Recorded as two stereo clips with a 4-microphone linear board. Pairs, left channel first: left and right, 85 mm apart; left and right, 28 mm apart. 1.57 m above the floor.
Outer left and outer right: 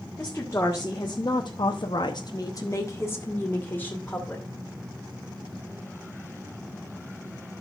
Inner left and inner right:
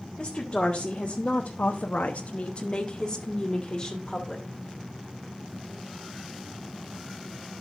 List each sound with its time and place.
0.2 s a woman speaking: 25° left (ahead or behind), 1.6 m; by 4.5 s 20° left (ahead or behind), 2.5 m